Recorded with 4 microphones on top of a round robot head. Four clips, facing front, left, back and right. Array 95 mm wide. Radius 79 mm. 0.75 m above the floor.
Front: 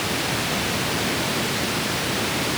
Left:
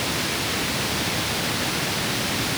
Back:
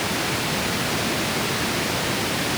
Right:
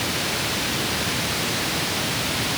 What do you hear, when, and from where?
Only background noise.